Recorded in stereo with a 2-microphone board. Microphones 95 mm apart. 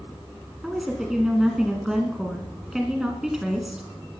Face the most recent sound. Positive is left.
turn(degrees=-5)  # may be behind; listen again after turning